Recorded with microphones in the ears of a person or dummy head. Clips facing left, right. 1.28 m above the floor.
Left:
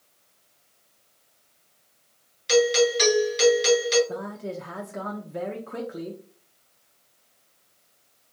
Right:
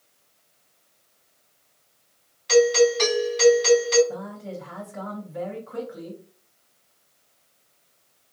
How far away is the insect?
I don't hear an insect.